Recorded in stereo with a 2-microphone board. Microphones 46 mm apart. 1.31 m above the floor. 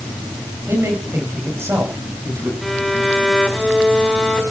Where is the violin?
Centre (ahead or behind), 5 m.